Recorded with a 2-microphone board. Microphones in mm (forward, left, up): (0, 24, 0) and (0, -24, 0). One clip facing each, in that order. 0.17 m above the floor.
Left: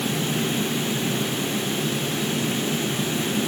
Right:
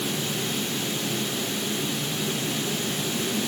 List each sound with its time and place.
Only background noise.